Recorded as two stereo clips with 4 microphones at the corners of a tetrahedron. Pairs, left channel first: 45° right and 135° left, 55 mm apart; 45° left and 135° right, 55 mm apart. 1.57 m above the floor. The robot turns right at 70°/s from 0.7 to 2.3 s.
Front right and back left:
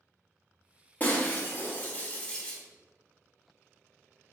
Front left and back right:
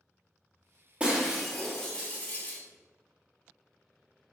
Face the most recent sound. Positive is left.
turn(degrees=10)